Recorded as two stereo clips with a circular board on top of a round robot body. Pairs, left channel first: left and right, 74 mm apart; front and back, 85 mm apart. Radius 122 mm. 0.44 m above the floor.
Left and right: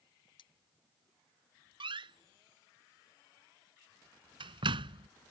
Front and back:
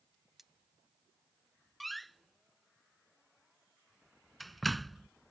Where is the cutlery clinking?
90° left.